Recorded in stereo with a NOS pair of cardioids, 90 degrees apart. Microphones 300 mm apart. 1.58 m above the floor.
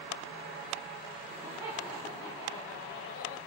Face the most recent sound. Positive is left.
turn(degrees=55)